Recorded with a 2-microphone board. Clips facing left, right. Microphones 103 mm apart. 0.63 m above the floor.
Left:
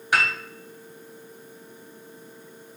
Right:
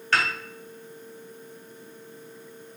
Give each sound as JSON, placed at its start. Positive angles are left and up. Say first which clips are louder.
{"t": 0.1, "sound": "a piano", "louder": "left 1 dB", "side_deg": 15, "distance_m": 0.7}